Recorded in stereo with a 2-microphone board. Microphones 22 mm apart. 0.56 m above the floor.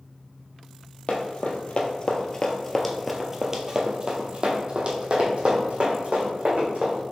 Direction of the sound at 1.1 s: 60° left (ahead or behind).